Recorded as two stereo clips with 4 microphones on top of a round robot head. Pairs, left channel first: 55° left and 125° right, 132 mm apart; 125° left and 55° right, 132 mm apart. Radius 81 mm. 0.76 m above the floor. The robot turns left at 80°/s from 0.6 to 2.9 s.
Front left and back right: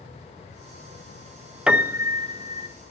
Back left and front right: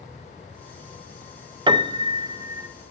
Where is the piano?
45° right, 0.6 m; by 2.7 s 125° right, 0.6 m.